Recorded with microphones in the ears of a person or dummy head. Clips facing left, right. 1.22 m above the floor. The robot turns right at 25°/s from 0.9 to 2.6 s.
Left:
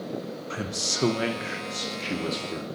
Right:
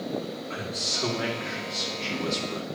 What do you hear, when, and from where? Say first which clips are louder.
0.5 s a man speaking: left 1 dB; 125° left, 0.6 m; by 2.6 s 170° left, 0.6 m